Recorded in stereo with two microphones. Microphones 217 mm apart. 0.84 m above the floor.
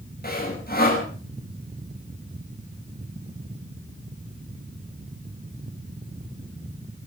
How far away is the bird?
No bird in this recording.